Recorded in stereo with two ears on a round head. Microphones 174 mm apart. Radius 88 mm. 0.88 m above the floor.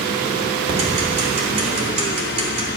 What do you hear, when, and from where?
0.7 s ticking: 30° right (ahead or behind), 3 m